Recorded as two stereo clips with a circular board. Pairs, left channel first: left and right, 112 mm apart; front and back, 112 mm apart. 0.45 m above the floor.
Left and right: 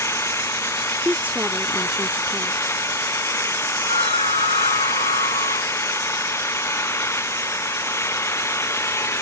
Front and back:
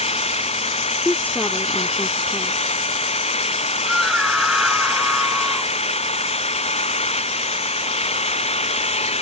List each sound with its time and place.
0.0 s an engine running: 25° left
1.1 s a woman speaking: 45° right
3.9 s a scream: 90° left